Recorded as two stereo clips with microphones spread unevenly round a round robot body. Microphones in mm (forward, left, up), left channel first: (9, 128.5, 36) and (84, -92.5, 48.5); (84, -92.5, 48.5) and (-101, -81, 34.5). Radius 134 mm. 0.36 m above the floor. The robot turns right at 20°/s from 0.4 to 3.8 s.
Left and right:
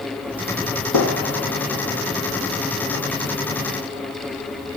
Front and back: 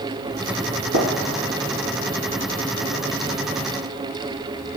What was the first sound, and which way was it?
A gunshot, 140° left.